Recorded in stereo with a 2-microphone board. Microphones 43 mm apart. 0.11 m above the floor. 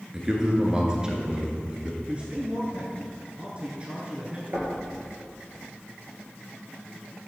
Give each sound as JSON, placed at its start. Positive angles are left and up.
{"t": 0.1, "sound": "a man speaking", "side_deg": -15, "distance_m": 1.5}
{"t": 2.0, "sound": "a man speaking", "side_deg": -30, "distance_m": 1.3}
{"t": 4.5, "sound": "knocking", "side_deg": -55, "distance_m": 2.0}